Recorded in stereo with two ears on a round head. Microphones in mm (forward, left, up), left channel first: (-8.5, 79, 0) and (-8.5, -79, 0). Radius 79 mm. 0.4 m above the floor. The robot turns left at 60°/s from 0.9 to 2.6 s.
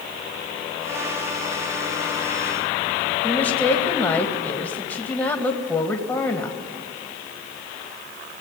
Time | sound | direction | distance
3.2 | a woman speaking | 10° left (ahead or behind) | 2.5 m